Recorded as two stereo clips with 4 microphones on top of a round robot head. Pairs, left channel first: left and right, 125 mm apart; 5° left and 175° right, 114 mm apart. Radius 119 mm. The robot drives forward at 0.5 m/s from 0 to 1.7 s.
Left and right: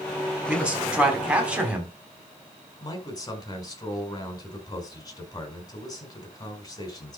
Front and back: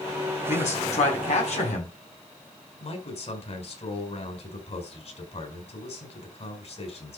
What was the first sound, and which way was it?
A man speaking, 10° right.